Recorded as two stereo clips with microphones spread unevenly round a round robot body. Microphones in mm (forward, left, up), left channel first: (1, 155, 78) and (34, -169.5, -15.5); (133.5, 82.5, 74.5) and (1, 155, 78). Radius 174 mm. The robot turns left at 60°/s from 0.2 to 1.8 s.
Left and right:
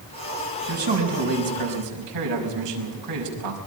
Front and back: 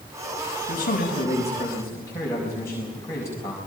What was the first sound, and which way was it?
A man speaking, 40° right.